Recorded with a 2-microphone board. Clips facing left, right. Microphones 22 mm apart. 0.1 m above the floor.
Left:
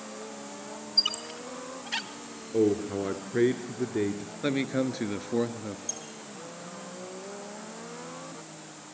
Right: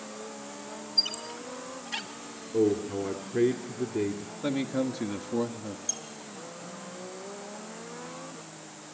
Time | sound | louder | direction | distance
1.0 | a squeak | left 1 dB | 25° left (ahead or behind) | 1.9 m
2.5 | a man speaking | left 1 dB | 20° left (ahead or behind) | 1.7 m
4.4 | a man speaking | left 1 dB | 25° left (ahead or behind) | 1.3 m
5.9 | a squeak | right 2 dB | 15° right (ahead or behind) | 3 m